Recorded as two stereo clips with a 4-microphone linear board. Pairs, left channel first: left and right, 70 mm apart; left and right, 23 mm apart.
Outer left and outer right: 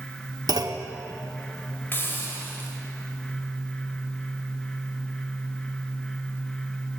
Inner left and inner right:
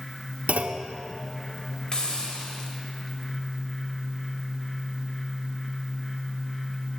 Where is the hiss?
35° left (ahead or behind), 1.5 m.